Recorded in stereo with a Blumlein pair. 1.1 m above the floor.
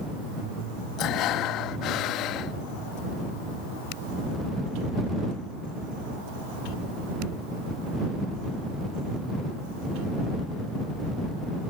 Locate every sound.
1.0 s breathing: 35° left